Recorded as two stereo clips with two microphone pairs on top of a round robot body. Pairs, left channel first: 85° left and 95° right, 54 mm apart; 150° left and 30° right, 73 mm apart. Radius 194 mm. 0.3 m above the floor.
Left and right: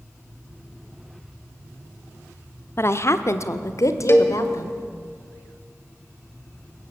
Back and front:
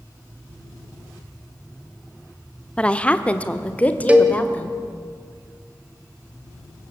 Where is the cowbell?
40° left, 1.9 m.